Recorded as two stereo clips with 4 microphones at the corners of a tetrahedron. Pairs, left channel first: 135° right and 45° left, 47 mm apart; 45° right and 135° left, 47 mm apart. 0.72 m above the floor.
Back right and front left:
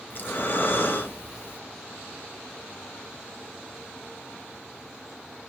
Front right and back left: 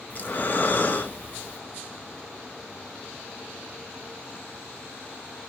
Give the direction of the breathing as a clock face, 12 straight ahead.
3 o'clock.